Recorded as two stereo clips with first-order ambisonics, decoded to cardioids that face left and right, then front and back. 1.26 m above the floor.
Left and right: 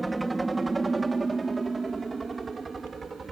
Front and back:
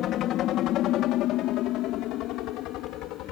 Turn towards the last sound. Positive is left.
turn(degrees=-15)